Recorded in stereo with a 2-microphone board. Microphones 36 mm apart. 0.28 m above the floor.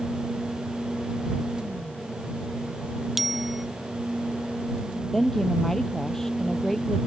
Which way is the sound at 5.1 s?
10° left (ahead or behind).